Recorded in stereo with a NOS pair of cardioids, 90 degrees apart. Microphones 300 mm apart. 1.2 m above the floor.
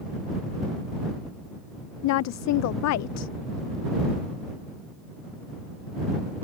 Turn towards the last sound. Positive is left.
turn(degrees=70)